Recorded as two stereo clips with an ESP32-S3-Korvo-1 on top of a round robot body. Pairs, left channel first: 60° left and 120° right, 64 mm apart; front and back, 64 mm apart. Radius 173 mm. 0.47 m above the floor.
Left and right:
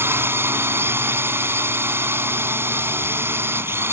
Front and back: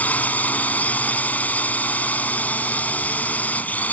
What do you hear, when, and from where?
0.0 s a drone: 65° right